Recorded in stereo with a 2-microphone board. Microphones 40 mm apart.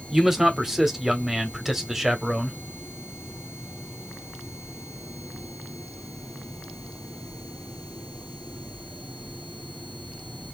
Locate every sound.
0.1 s a man speaking: 10° right (ahead or behind), 0.9 m